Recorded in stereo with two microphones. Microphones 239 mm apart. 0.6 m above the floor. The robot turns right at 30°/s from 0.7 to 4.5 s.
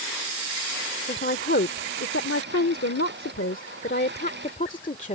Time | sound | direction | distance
1.1 | a woman speaking | 40° left | ?